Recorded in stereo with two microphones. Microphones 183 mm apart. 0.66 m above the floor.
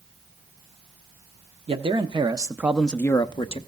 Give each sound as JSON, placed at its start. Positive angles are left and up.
{"t": 1.7, "sound": "a man speaking", "side_deg": -30, "distance_m": 1.1}